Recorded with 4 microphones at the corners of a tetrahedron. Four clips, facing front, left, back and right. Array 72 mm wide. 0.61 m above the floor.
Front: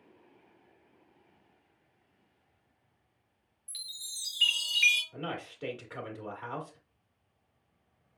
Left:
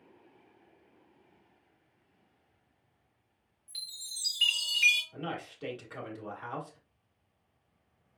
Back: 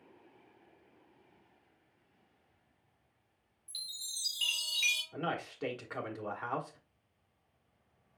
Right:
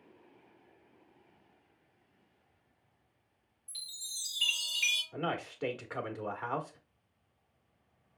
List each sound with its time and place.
3.7 s a chime: 35° left, 3.5 m
5.1 s a man speaking: 125° right, 1.3 m